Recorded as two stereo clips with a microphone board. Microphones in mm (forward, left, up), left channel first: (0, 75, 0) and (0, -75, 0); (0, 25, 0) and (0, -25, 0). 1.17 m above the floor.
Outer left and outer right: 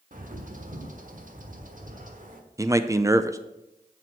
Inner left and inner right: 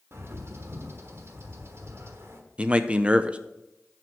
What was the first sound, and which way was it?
A bird, 60° right (ahead or behind).